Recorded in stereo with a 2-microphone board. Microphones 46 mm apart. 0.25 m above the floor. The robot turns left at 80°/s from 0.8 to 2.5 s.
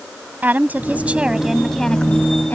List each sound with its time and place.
0.4 s a woman speaking: 110° right; by 2.5 s 110° left